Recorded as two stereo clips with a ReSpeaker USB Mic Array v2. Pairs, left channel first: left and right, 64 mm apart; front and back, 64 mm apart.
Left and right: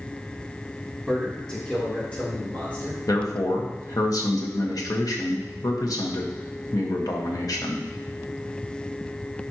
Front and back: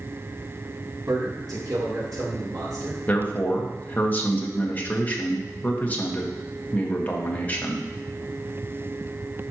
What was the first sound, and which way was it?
A man speaking, 170° left.